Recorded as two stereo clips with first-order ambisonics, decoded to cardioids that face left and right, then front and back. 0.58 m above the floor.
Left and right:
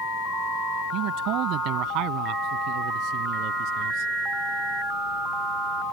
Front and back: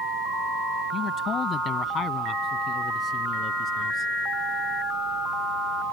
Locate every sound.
0.9 s a man speaking: 60° right